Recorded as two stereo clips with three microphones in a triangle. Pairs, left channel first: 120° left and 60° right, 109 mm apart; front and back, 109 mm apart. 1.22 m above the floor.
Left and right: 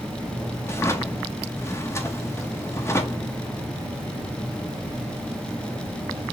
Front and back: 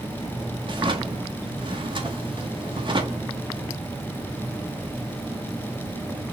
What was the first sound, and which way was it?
A drawer, 175° left.